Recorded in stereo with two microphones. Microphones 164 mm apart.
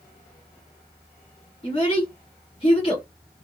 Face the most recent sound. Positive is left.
turn(degrees=35)  # may be behind; listen again after turning